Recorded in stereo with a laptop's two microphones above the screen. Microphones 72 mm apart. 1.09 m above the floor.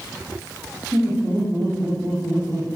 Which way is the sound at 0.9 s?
55° right (ahead or behind).